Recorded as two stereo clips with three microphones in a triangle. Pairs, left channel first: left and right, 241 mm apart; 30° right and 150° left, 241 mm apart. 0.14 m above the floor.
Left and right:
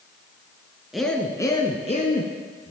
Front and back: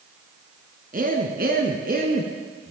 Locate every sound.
0.9 s a man speaking: straight behind, 1.6 m; by 2.7 s 105° left, 1.9 m